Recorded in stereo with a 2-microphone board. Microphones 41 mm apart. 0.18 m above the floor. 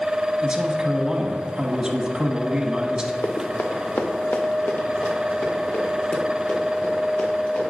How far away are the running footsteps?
About 1.7 m.